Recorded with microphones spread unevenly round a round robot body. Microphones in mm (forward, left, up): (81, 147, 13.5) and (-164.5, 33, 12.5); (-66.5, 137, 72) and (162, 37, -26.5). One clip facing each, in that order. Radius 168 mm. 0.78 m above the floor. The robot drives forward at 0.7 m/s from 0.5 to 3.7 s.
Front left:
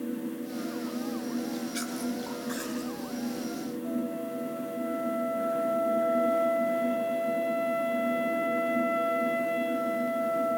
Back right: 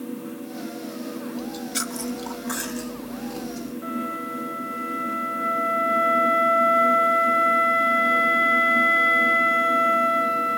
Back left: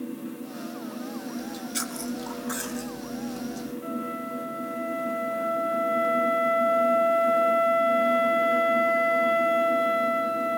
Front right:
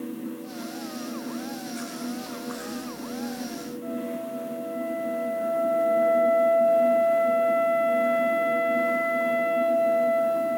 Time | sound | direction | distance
1.4 | chewing | straight behind | 2.5 m
3.8 | a flute | 155° right | 2.5 m